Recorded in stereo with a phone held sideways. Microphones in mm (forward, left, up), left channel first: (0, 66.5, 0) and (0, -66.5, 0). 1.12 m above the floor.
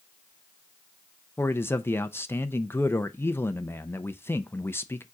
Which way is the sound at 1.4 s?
15° left (ahead or behind).